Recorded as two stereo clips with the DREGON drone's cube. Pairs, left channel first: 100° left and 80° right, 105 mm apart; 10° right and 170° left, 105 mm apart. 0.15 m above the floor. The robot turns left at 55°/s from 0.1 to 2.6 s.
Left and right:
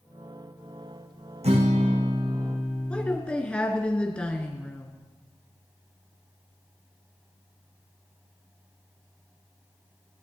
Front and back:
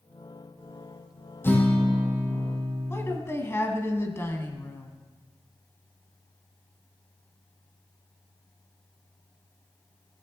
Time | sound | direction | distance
1.4 | a guitar | 80° right | 1.8 m
2.9 | a woman speaking | 30° left | 1.2 m